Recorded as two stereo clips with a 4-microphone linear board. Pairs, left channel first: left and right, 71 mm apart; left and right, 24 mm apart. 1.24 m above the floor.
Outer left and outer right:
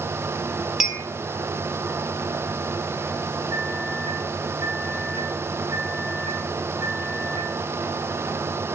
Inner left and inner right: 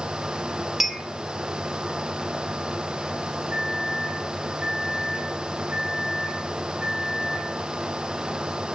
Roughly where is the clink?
Centre.